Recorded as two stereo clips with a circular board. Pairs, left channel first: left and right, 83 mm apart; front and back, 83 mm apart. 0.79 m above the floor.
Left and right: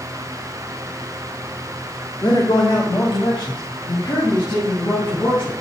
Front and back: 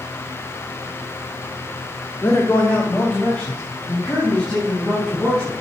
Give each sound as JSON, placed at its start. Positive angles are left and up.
{"t": 2.2, "sound": "a man speaking", "azimuth_deg": 65, "distance_m": 2.0}